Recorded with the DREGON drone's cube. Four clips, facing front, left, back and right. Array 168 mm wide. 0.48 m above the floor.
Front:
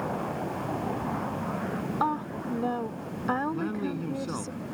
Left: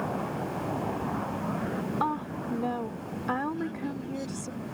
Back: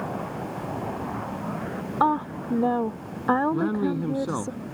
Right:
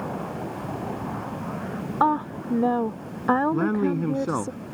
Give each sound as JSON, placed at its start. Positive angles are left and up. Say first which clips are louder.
{"t": 2.0, "sound": "a woman speaking", "louder": "right 12 dB, back 8 dB", "azimuth_deg": -130}
{"t": 3.5, "sound": "a man speaking", "louder": "right 10 dB, back 6 dB", "azimuth_deg": -115}